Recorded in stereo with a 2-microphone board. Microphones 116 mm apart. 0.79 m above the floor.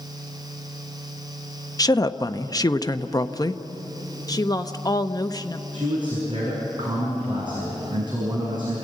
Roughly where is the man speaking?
Right.